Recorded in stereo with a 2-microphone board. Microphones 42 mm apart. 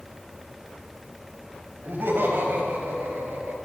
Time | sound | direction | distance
1.8 | laughter | 65° right (ahead or behind) | 6.5 m